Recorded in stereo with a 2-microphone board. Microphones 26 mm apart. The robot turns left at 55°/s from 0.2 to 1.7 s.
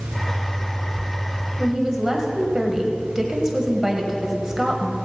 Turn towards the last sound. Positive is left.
turn(degrees=-20)  # may be behind; listen again after turning